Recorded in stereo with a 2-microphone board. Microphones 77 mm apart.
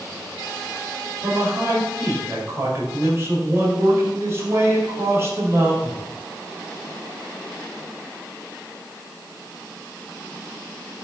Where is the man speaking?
35° right (ahead or behind), 5.5 m.